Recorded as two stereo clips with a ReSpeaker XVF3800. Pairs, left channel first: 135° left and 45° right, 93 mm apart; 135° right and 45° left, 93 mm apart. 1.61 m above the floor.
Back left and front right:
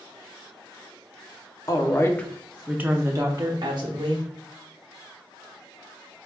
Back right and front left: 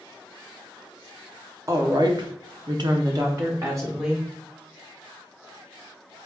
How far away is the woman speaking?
About 0.8 m.